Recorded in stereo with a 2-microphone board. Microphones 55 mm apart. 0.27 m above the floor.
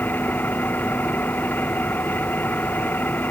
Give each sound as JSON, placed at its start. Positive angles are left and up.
{"t": 0.0, "sound": "an engine running", "side_deg": 35}